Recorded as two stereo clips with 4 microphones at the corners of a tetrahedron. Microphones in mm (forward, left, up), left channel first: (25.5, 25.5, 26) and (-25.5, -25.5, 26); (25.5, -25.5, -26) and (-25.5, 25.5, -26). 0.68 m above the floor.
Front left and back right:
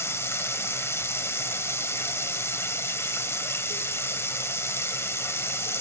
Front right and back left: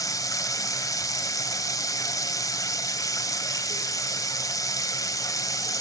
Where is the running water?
10° right, 1.5 m.